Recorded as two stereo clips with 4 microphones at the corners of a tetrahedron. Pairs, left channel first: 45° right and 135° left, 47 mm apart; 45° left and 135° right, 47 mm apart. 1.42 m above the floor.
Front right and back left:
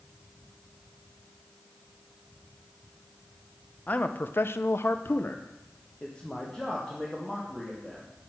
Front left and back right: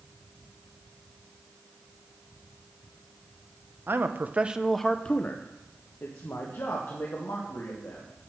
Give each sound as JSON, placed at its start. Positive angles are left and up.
{"t": 3.9, "sound": "a man speaking", "azimuth_deg": -100, "distance_m": 0.7}